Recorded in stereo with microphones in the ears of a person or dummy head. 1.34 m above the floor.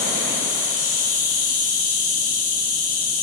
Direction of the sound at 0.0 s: 70° left (ahead or behind).